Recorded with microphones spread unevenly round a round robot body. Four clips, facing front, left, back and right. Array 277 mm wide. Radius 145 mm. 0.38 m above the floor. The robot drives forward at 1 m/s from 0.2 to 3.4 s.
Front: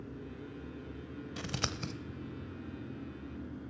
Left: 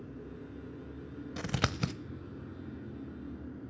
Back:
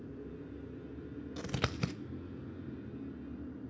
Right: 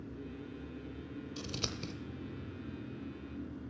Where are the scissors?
60° left, 0.9 m; by 1.9 s 100° left, 0.8 m.